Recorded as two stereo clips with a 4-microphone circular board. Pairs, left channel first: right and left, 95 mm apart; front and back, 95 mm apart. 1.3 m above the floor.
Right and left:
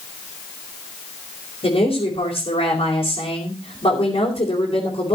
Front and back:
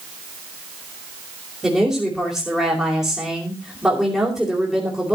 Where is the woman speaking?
95° right, 4 m.